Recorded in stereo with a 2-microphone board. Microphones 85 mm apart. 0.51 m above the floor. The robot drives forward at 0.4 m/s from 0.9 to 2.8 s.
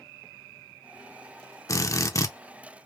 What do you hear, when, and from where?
1.7 s a drill: 40° left (ahead or behind), 0.7 m